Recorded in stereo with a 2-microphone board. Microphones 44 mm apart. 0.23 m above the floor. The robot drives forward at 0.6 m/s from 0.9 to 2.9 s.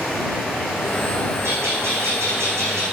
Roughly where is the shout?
No shout in this recording.